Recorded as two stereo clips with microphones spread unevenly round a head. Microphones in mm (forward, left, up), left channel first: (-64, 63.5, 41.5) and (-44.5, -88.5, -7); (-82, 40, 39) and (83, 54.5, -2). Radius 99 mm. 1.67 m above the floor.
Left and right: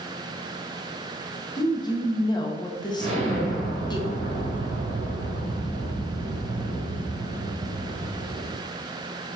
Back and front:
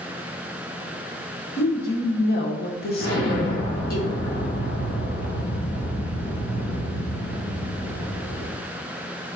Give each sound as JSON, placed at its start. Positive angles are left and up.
{"t": 1.6, "sound": "a woman speaking", "azimuth_deg": 160, "distance_m": 1.8}
{"t": 3.0, "sound": "an explosion", "azimuth_deg": -140, "distance_m": 3.0}